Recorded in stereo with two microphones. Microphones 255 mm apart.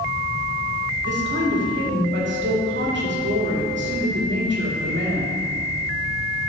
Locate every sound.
1.0 s a woman speaking: 45° right (ahead or behind), 2.5 m